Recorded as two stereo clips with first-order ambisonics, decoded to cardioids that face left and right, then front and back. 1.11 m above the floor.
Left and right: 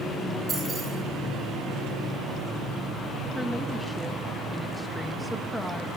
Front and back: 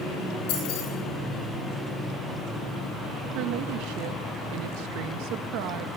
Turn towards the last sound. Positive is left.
turn(degrees=180)